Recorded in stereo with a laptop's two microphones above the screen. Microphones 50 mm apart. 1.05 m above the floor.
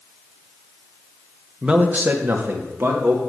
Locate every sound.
1.6 s a man speaking: 15° right (ahead or behind), 0.8 m; by 3.2 s 60° right (ahead or behind), 1.9 m